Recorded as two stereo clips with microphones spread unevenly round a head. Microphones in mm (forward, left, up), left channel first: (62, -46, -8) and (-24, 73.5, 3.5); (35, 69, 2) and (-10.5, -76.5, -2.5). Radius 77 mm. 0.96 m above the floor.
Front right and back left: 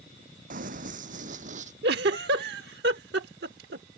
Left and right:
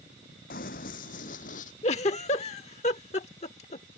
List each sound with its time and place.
0.5 s running footsteps: 105° left
1.8 s a giggle: 125° left